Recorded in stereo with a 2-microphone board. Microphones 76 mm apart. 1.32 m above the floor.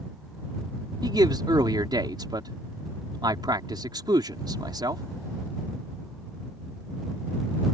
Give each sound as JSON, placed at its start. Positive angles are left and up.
{"t": 1.0, "sound": "a man speaking", "side_deg": -80}